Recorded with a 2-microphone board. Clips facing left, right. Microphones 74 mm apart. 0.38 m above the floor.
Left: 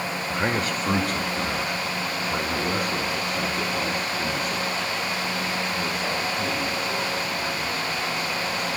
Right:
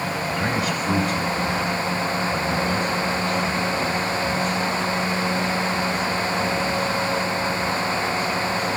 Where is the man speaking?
20° left (ahead or behind), 0.8 m; by 8.7 s 75° left (ahead or behind), 9.5 m.